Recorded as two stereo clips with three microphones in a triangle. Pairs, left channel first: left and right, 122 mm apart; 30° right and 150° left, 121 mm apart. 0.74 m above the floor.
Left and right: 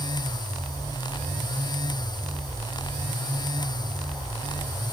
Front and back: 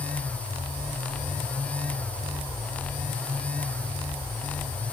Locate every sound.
Only background noise.